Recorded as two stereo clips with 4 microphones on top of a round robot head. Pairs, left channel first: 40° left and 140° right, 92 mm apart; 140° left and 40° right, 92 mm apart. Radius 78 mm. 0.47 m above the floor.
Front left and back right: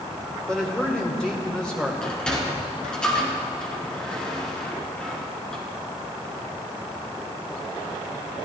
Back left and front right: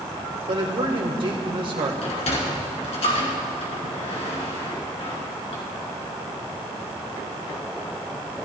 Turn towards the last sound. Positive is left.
turn(degrees=125)